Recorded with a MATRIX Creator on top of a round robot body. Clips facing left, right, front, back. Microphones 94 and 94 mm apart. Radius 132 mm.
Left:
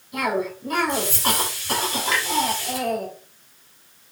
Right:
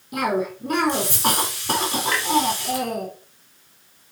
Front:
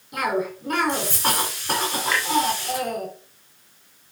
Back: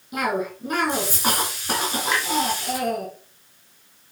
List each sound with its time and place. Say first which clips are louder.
0.1 s a cough: right 1 dB, even; 95° right, 4 m
2.1 s a clunk: left 3 dB, back 1 dB; 105° right, 2.5 m